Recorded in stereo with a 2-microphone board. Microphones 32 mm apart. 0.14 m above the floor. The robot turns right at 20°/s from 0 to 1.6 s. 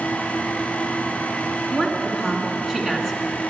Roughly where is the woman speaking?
Centre.